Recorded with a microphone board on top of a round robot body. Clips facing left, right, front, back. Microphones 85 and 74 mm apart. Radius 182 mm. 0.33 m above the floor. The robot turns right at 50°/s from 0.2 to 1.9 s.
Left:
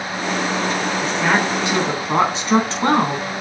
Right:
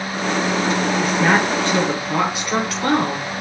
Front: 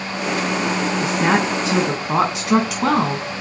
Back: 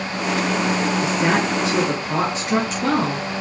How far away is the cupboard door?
I don't hear a cupboard door.